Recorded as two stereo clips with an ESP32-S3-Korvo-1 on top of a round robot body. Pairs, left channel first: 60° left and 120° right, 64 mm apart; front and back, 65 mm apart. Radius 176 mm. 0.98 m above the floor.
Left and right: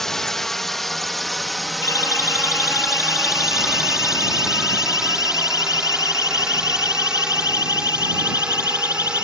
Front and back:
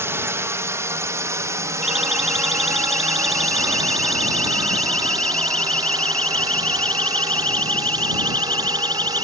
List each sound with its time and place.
0.0 s a drone: 145° left; by 9.2 s 165° left
1.8 s a siren: 95° left; by 9.2 s 65° left